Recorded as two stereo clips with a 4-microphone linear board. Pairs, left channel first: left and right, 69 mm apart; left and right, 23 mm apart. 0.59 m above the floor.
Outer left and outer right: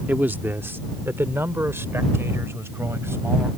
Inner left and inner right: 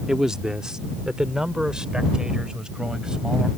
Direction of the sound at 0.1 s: 25° right (ahead or behind).